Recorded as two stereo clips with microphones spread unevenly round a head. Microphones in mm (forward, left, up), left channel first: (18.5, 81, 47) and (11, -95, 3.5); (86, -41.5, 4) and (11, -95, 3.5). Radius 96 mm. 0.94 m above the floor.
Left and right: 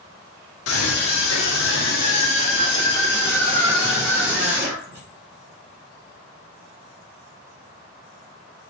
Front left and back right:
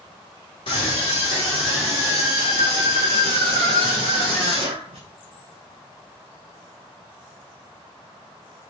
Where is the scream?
100° left, 2 m; by 5.0 s 170° right, 3.5 m.